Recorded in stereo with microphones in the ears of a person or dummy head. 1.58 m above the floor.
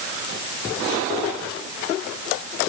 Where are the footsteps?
I don't hear footsteps.